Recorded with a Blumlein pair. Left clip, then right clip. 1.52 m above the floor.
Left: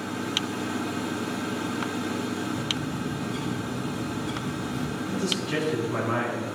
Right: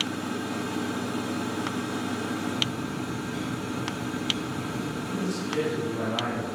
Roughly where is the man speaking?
Ahead left.